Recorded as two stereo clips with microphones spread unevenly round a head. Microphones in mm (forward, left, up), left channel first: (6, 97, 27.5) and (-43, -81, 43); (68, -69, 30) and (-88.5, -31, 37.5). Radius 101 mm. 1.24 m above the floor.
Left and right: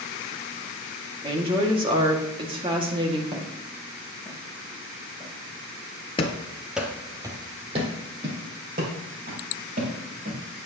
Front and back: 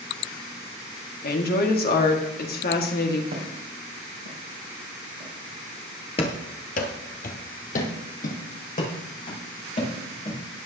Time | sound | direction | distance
1.2 | a woman speaking | 40° right | 2 m
3.3 | footsteps | 165° right | 3 m
6.2 | running footsteps | 20° left | 1.4 m